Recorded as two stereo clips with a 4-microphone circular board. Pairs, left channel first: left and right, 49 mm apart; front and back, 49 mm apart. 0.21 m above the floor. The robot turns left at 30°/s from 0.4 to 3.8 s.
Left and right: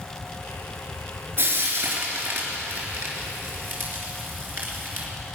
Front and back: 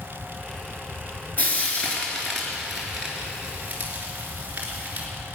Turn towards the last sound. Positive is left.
turn(degrees=-125)